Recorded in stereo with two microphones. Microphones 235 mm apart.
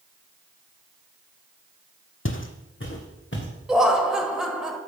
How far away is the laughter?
About 1.0 m.